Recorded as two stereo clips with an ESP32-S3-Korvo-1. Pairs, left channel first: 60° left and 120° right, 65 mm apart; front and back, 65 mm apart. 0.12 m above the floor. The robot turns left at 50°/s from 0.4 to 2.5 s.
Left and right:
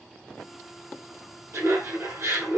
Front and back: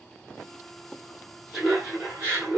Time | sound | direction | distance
1.5 | laughter | 90° right | 2 m